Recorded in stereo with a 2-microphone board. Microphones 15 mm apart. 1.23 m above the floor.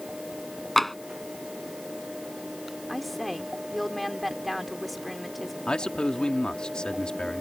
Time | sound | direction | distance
0.8 | tapping | 10° left (ahead or behind) | ?
2.9 | a woman speaking | centre (ahead or behind) | ?
5.7 | a man speaking | 75° left (ahead or behind) | ?